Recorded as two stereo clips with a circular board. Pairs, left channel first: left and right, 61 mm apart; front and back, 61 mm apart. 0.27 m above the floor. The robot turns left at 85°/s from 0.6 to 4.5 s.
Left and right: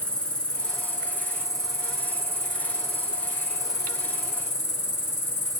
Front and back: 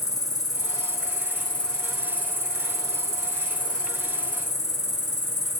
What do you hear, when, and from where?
0.0 s an insect: 20° left, 0.8 m; by 5.6 s 50° left, 0.8 m